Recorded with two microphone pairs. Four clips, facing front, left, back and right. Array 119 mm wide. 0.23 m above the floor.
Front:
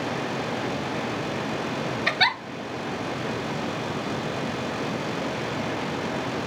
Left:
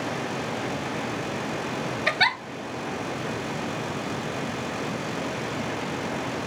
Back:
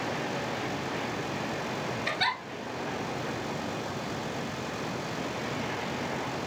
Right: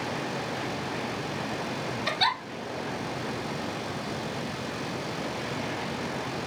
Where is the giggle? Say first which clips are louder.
Left 3 dB, front 6 dB; 60° left, 1.1 m.